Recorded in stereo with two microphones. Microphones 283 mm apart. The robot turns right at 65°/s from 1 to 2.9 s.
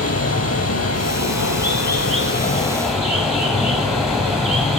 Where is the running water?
60° left, 5 m; by 4.8 s straight behind, 5 m.